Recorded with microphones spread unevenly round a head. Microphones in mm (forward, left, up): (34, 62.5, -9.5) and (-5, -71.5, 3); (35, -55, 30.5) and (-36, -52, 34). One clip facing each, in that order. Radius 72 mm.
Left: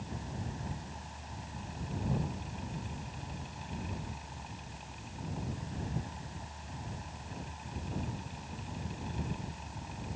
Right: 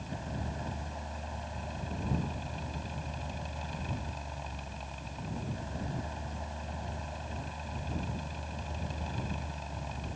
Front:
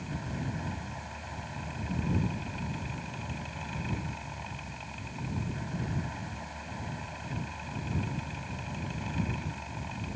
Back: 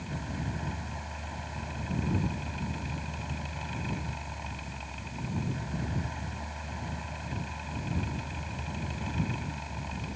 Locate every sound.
0.0 s a fan: 95° right